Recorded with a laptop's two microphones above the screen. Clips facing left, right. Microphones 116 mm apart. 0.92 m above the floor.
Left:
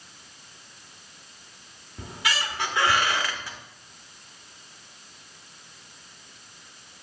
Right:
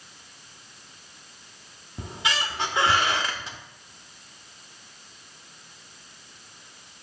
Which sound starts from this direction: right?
A squeak, at 2.0 s.